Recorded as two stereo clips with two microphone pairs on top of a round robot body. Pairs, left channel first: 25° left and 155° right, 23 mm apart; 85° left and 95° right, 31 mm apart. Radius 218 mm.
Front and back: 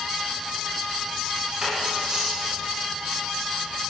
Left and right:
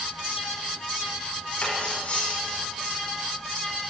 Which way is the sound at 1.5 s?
140° left.